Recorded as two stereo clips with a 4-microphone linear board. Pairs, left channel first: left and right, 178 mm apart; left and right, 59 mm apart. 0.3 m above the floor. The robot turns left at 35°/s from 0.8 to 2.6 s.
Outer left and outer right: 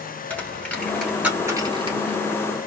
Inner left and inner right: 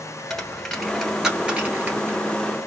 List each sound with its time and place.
0.3 s a dropped coin: 10° left (ahead or behind), 1.4 m; by 2.2 s 40° right (ahead or behind), 1.4 m